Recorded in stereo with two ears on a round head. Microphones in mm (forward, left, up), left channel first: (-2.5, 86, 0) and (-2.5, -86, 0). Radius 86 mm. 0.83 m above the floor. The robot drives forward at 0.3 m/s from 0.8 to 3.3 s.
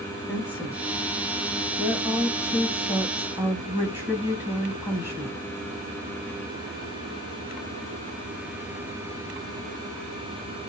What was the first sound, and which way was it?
A woman speaking, 5° right (ahead or behind).